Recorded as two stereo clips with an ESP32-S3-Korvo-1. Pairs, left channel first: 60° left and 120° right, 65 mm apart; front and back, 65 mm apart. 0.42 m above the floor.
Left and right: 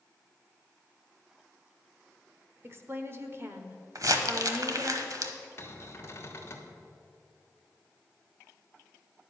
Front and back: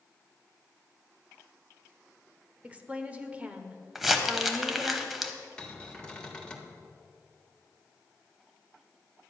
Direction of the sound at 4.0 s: 95° right.